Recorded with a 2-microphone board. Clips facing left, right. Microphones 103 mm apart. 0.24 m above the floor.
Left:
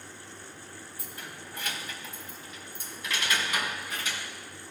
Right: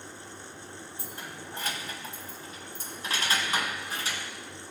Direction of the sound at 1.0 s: 30° right (ahead or behind).